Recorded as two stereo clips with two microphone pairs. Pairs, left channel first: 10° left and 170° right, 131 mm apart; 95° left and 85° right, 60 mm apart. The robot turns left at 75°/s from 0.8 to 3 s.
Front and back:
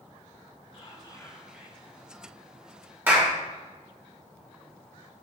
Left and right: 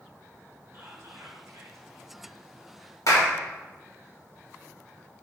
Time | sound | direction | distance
0.7 | whispering | 30° right | 1.4 m
3.1 | a clap | 115° left | 1.3 m